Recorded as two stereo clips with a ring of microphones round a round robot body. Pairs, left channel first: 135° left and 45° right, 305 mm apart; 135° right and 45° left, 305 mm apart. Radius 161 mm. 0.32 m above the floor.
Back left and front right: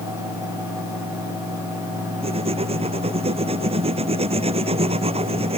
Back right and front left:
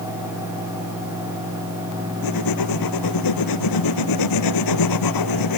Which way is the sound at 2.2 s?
115° right.